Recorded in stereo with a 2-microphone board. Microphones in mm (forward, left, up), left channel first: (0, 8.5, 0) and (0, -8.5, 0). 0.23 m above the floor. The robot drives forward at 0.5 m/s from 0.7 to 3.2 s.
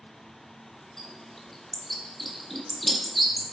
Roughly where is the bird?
Centre.